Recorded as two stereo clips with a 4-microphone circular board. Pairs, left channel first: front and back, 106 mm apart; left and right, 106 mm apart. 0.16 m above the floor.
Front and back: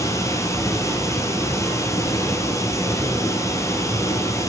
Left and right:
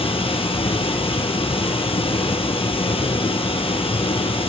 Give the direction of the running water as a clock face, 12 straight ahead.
10 o'clock.